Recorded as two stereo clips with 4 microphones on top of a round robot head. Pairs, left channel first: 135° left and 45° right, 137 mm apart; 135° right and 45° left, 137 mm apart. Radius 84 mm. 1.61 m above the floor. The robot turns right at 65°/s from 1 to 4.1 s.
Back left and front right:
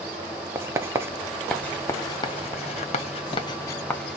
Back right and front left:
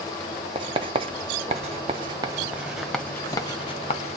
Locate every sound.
0.6 s writing: 15° left, 0.6 m; by 4.2 s 140° right, 0.6 m